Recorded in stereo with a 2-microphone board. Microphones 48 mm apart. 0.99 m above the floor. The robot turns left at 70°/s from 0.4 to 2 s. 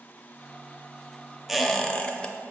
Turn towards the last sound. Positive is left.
turn(degrees=155)